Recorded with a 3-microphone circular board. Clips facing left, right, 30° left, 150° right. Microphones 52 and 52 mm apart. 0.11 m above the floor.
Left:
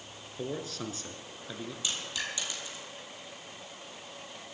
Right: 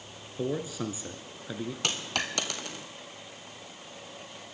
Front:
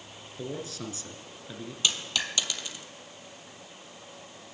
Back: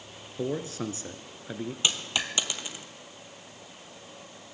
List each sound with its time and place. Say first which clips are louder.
0.4 s a man speaking: right 5 dB, back 5 dB; 155° right, 1.2 m
1.8 s a dropped coin: right 4 dB, even; 85° right, 1.2 m